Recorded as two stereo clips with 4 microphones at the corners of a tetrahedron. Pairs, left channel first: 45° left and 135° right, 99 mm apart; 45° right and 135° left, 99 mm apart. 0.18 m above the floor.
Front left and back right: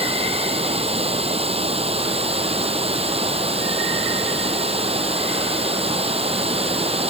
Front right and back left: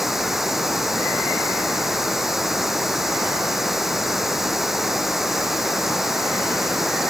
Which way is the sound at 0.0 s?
140° right.